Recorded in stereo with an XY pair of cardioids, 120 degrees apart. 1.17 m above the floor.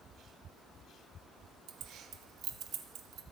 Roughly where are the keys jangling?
Ahead right.